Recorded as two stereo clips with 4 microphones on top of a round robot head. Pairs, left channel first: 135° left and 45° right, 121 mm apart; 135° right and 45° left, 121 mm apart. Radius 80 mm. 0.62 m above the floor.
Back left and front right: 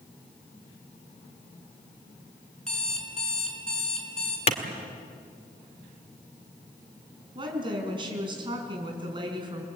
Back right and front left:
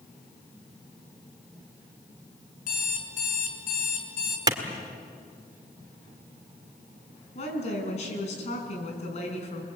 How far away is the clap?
About 1.8 m.